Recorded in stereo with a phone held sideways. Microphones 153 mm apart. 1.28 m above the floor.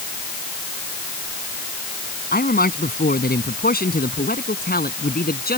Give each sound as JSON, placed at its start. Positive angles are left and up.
{"t": 2.3, "sound": "a man speaking", "side_deg": 80}